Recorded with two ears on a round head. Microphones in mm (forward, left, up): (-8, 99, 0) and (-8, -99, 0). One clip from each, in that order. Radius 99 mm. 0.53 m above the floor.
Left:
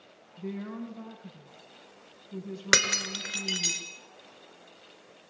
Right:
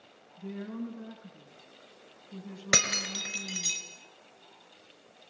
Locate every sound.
0.4 s a woman speaking: 55° left (ahead or behind), 4.5 m
2.7 s breaking glass: 45° left (ahead or behind), 4.5 m